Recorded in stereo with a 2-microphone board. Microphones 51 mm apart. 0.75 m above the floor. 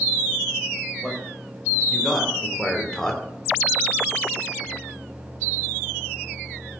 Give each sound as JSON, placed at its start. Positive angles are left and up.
{"t": 1.0, "sound": "a man speaking", "side_deg": -5, "distance_m": 3.5}